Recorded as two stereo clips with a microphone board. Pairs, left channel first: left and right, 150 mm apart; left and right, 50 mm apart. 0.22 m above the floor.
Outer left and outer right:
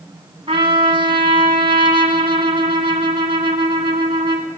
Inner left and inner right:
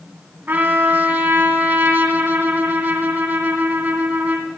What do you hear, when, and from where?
0.5 s a trumpet: 35° right (ahead or behind), 1.7 m